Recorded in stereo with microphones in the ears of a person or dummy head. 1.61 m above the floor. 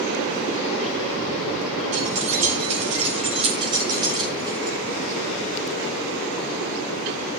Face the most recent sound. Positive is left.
turn(degrees=-20)  # may be behind; listen again after turning